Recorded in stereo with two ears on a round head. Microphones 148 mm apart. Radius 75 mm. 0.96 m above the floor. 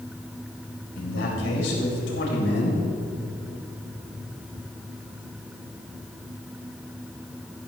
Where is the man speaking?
75° left (ahead or behind), 4 m.